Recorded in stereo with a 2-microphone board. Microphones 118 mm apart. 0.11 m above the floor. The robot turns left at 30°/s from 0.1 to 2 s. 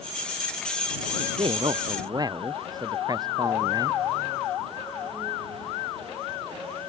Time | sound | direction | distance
1.2 | a man speaking | 60° right (ahead or behind) | ?